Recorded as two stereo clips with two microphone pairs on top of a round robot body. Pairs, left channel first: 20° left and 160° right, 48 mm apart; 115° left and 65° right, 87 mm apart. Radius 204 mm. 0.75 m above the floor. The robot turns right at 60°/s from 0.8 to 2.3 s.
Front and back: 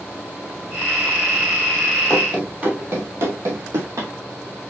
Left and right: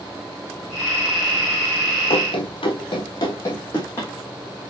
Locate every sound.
2.1 s running footsteps: 110° left, 1.1 m; by 4.1 s 170° right, 2 m